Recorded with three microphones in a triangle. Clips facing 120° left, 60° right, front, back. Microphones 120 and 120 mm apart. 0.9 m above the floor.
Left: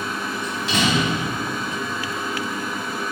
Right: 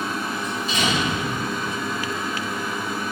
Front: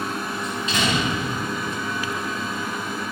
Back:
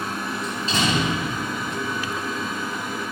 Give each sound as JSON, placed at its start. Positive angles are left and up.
{"t": 0.4, "sound": "a door slam", "azimuth_deg": 125, "distance_m": 4.5}